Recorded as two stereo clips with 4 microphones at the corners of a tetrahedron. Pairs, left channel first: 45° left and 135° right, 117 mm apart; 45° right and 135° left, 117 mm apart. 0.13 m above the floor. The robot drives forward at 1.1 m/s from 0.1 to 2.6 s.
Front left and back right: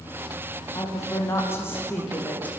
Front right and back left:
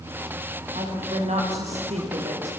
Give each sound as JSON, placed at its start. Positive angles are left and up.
{"t": 0.8, "sound": "a woman speaking", "azimuth_deg": 110, "distance_m": 7.0}